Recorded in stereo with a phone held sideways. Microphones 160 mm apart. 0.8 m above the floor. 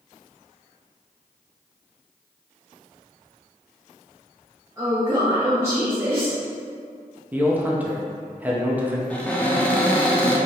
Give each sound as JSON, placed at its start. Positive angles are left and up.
{"t": 4.8, "sound": "a woman speaking", "side_deg": -20, "distance_m": 0.8}
{"t": 7.3, "sound": "a man speaking", "side_deg": -10, "distance_m": 0.6}
{"t": 9.1, "sound": "a cupboard door", "side_deg": 10, "distance_m": 0.6}